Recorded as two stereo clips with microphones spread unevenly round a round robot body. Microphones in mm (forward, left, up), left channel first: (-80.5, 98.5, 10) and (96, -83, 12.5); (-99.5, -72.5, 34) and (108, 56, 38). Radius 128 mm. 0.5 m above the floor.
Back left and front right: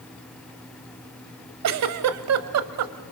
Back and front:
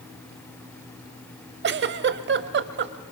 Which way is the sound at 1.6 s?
15° right.